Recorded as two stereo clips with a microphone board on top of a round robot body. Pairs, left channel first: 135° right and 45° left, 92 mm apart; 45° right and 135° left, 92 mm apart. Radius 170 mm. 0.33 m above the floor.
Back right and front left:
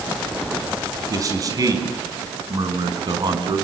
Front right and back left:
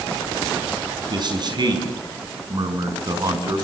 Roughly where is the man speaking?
Left.